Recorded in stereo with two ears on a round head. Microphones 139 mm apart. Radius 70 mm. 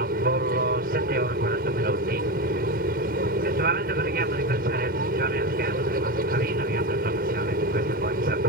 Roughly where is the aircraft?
Right.